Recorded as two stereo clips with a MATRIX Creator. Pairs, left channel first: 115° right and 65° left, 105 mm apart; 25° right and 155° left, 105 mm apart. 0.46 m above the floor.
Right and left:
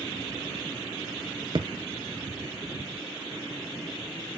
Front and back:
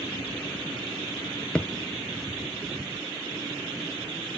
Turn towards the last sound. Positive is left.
turn(degrees=55)